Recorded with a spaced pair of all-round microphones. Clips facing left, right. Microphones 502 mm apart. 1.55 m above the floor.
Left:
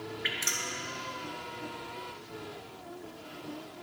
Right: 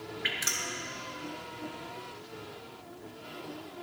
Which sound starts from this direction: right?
Dripping, at 0.2 s.